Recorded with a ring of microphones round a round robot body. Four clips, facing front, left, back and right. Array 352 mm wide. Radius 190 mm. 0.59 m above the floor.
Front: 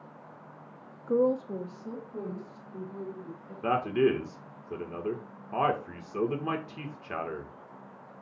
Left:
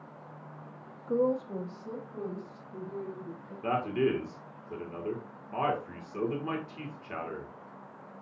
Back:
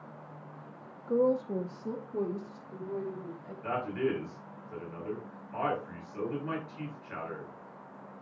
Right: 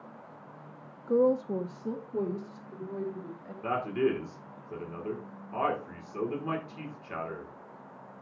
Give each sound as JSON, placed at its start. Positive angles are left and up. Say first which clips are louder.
{"t": 1.1, "sound": "a woman speaking", "louder": "right 3 dB, front 1 dB", "azimuth_deg": -25, "distance_m": 0.9}
{"t": 3.6, "sound": "a man speaking", "louder": "even, front 6 dB", "azimuth_deg": 0, "distance_m": 1.7}